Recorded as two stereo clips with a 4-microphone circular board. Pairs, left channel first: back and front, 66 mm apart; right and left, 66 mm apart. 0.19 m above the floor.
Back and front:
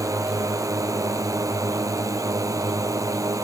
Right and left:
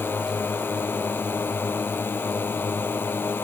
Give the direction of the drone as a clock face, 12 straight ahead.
1 o'clock.